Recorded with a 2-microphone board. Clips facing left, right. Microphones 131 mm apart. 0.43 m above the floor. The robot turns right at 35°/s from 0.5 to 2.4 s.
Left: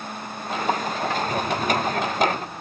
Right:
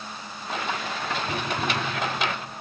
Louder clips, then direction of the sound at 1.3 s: Left 4 dB; 5° right (ahead or behind).